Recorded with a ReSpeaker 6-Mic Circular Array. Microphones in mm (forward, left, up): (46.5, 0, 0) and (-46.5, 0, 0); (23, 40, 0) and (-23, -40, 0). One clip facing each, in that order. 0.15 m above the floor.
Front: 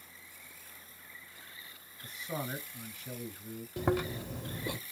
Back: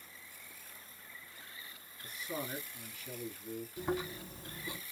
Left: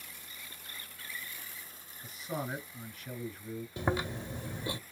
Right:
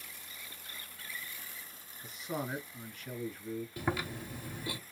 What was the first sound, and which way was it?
A man speaking, 25° right.